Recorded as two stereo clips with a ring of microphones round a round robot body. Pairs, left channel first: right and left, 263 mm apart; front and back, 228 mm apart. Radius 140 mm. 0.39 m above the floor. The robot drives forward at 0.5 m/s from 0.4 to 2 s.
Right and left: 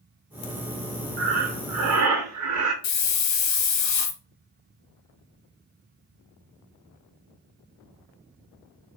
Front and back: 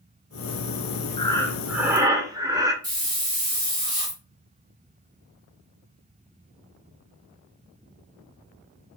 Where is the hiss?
105° right, 0.6 m.